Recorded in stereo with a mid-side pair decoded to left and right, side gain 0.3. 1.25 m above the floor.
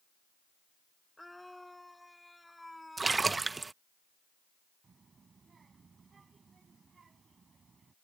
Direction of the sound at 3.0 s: 35° right.